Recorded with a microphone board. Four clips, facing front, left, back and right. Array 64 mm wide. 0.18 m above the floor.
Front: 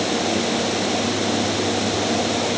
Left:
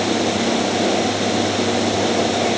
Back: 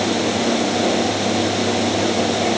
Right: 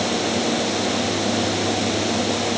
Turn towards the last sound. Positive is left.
No sound to turn to.